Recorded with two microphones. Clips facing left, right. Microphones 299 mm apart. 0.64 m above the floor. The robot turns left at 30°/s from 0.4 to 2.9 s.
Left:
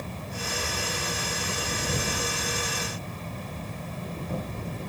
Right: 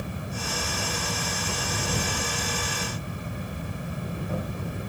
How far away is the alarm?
No alarm in this recording.